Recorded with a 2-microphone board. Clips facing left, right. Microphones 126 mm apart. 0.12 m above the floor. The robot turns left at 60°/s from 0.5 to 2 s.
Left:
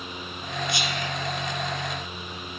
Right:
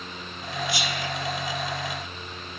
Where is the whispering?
25° left (ahead or behind), 1.3 m; by 1.1 s 35° left (ahead or behind), 1.3 m.